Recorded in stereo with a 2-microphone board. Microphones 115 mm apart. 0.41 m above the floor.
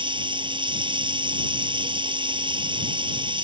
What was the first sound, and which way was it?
Running water, 45° right (ahead or behind).